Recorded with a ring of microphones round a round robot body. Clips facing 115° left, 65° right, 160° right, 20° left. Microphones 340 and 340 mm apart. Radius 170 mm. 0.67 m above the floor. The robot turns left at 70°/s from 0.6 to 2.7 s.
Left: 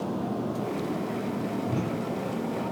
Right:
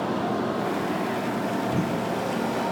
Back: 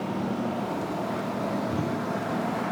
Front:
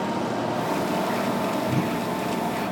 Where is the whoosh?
40° left, 1.8 m; by 2.1 s 10° left, 1.8 m.